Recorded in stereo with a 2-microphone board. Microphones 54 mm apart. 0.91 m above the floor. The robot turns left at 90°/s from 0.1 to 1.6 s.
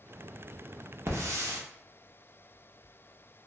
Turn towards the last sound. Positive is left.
turn(degrees=-100)